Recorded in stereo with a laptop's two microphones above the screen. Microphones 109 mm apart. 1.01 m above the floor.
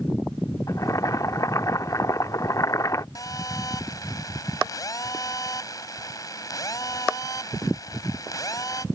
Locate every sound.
0.7 s boiling: 35° left (ahead or behind)
3.1 s a phone buzzing: 35° left (ahead or behind)